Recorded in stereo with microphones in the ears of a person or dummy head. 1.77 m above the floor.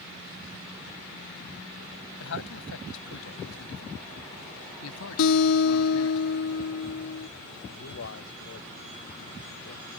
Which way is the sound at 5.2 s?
80° left.